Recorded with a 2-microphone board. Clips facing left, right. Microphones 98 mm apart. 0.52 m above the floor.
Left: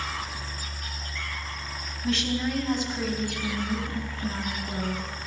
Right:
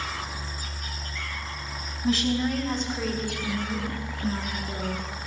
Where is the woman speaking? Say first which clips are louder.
Right 3 dB; 10° right (ahead or behind), 3 m; by 5.1 s 35° left (ahead or behind), 4.5 m.